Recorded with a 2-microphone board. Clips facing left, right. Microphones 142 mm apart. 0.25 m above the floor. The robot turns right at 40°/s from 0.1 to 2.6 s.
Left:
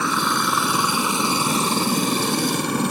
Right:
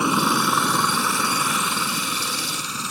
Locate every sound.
0.0 s a helicopter: 15° right (ahead or behind); by 2.9 s 60° left (ahead or behind)